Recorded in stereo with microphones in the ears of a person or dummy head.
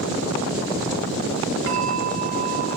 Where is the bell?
60° right (ahead or behind), 4 m.